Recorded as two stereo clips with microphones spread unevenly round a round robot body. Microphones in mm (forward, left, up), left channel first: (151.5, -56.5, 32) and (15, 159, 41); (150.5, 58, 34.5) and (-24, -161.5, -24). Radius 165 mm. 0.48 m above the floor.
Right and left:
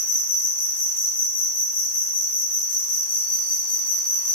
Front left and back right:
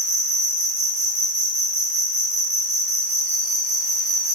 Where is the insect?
110° right, 1.1 m.